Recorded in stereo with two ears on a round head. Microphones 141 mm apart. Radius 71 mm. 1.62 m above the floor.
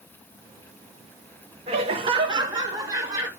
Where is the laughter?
40° right (ahead or behind), 1.7 m; by 3.3 s 20° right (ahead or behind), 3 m.